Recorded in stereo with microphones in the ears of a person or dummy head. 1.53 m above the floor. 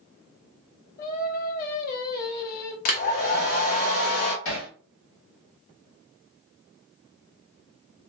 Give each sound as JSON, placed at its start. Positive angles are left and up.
{"t": 1.0, "sound": "singing", "side_deg": 45, "distance_m": 0.7}
{"t": 2.9, "sound": "a hair dryer", "side_deg": 50, "distance_m": 0.6}
{"t": 4.5, "sound": "hammering", "side_deg": 70, "distance_m": 1.6}